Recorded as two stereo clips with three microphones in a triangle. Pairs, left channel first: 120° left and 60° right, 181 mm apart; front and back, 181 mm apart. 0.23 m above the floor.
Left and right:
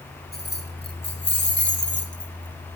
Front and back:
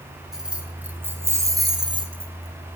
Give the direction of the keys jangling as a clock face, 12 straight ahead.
9 o'clock.